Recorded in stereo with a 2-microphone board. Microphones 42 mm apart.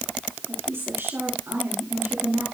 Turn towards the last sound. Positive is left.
turn(degrees=-80)